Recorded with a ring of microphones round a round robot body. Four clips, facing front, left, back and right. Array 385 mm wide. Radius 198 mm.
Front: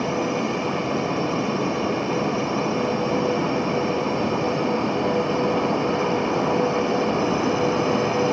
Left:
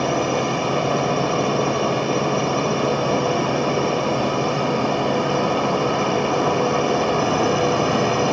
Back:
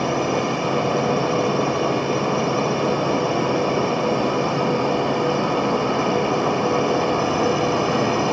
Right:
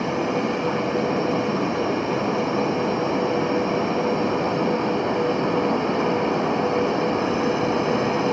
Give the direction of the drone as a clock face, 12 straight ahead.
8 o'clock.